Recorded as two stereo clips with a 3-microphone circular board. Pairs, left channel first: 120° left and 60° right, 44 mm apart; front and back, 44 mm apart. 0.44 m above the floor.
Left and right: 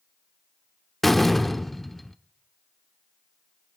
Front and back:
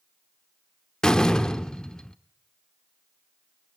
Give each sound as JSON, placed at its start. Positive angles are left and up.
{"t": 1.0, "sound": "a door slam", "azimuth_deg": 45, "distance_m": 0.8}